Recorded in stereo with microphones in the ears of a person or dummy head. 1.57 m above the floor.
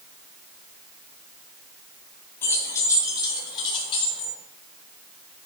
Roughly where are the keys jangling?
Centre.